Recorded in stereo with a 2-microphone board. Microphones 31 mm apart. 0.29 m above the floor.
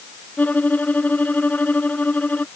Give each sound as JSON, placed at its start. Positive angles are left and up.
{"t": 0.4, "sound": "a violin", "side_deg": 60}